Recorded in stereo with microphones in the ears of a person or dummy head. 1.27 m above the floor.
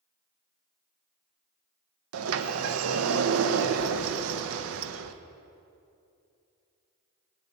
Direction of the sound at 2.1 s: 75° right (ahead or behind).